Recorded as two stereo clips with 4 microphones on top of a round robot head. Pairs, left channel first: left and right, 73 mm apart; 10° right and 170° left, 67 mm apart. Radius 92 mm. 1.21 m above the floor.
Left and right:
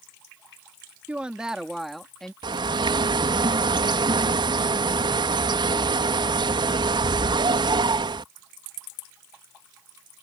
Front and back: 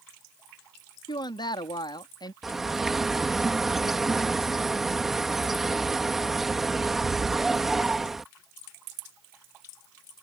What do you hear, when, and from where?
1.1 s a woman speaking: 15° right; by 2.3 s 5° left
2.4 s a bird: 100° right